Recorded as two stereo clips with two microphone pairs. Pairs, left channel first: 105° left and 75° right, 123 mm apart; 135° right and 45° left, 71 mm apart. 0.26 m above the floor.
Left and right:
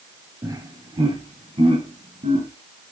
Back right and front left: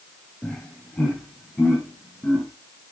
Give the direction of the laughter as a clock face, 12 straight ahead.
2 o'clock.